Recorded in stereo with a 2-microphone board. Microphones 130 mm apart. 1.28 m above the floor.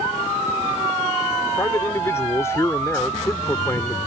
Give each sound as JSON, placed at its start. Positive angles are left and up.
{"t": 1.6, "sound": "a man speaking", "side_deg": 20}